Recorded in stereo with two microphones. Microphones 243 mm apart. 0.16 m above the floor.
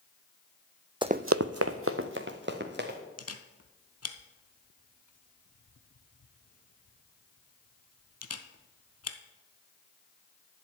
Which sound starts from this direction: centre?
Running footsteps, at 1.0 s.